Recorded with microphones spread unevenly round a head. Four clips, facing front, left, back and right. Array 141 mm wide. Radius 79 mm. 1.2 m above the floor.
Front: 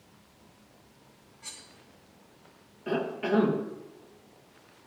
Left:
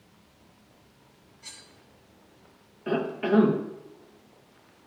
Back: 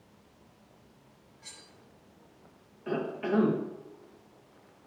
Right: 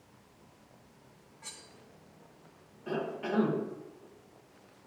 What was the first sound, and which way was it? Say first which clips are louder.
Cutlery clinking: even, front 3 dB; 90° right.